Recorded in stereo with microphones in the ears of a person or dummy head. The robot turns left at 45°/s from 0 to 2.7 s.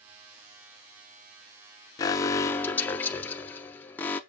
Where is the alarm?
20° left (ahead or behind), 0.7 m; by 4.2 s 10° left (ahead or behind), 0.7 m.